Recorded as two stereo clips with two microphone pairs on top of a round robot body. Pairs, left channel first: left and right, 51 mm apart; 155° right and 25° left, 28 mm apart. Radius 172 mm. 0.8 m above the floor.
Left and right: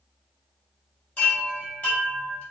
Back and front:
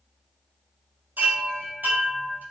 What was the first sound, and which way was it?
A chime, 35° left.